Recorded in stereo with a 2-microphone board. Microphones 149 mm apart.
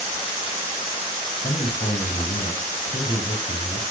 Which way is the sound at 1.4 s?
50° left (ahead or behind).